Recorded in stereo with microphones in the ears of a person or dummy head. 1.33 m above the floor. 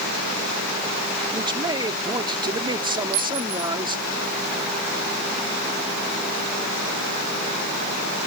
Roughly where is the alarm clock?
No alarm clock in this recording.